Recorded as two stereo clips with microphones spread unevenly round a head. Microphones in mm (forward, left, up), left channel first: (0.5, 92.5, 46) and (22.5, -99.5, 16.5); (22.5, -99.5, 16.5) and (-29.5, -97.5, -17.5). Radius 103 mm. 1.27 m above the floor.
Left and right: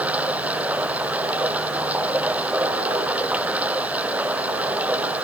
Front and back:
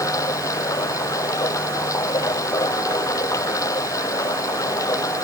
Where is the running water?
Straight ahead.